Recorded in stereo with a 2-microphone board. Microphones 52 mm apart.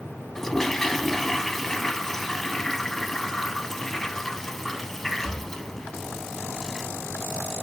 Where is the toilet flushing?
10° left (ahead or behind), 0.5 m.